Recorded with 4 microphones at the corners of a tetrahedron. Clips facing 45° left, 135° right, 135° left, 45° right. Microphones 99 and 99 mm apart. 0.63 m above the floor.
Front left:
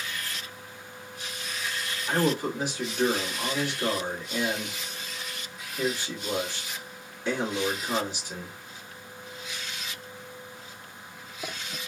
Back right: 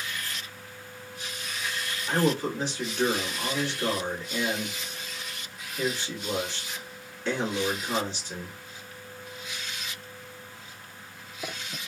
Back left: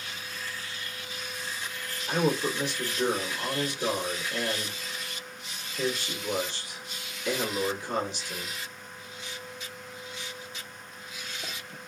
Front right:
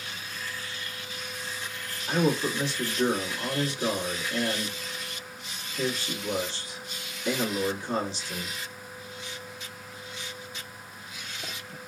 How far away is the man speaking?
About 1.4 m.